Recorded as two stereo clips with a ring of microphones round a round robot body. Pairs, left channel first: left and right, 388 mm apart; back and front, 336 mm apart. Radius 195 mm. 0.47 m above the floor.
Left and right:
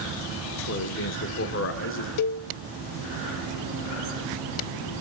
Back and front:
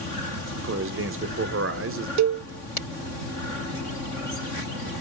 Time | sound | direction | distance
0.6 | a man speaking | 40° left | 1.4 m
2.2 | a cowbell | 45° left | 0.7 m